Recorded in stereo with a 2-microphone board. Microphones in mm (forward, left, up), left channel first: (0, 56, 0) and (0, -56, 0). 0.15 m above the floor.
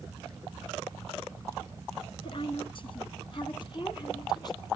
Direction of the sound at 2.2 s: 45° left (ahead or behind).